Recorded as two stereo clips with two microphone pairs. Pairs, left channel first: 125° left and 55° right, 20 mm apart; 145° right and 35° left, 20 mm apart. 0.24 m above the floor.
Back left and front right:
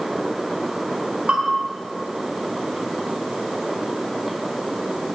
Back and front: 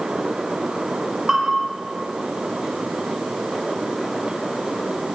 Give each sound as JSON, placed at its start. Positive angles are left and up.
{"t": 1.3, "sound": "a bell", "azimuth_deg": -45, "distance_m": 6.5}